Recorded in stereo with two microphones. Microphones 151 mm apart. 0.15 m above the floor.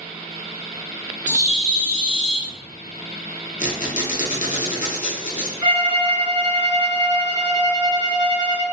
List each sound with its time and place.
1.3 s a bird: 30° right (ahead or behind), 1.5 m
3.6 s a squeak: 65° left (ahead or behind), 0.7 m
5.6 s a violin: 25° right (ahead or behind), 1.8 m